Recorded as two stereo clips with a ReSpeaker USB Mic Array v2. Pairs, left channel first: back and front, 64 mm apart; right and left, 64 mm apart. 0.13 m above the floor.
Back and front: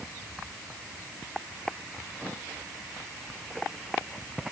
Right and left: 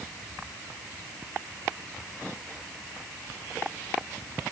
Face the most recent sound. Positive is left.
No sound to turn to.